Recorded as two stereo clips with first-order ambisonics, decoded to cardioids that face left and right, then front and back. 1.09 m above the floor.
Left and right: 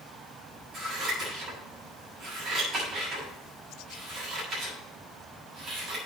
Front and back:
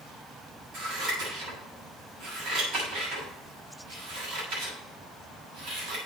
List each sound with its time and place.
0.7 s scissors: 150° right, 7.5 m